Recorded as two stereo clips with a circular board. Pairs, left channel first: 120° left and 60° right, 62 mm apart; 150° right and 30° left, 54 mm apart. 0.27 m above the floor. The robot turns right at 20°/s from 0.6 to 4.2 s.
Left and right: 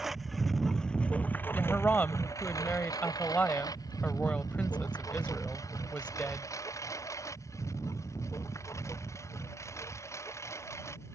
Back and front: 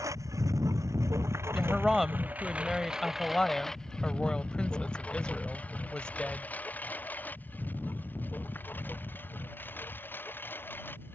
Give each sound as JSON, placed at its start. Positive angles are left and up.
{"t": 0.0, "sound": "a lawn mower", "azimuth_deg": 25}
{"t": 1.6, "sound": "a woman speaking", "azimuth_deg": 105}